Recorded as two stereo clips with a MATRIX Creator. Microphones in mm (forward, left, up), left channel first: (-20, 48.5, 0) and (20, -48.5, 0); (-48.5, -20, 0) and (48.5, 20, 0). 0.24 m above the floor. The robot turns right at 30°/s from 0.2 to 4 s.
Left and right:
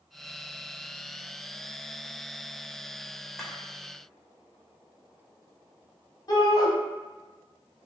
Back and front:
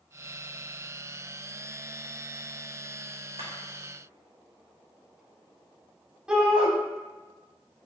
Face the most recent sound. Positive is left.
turn(degrees=100)